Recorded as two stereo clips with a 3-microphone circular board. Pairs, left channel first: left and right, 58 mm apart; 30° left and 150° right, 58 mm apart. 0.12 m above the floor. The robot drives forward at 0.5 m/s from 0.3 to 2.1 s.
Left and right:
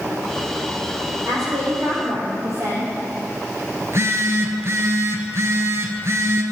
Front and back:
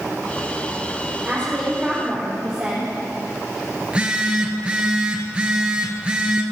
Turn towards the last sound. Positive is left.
turn(degrees=-80)